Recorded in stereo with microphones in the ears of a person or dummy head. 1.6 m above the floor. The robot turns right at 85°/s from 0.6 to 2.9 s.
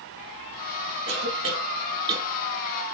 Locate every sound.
1.1 s a cough: 70° right (ahead or behind), 1.1 m; by 2.3 s 10° right (ahead or behind), 1.1 m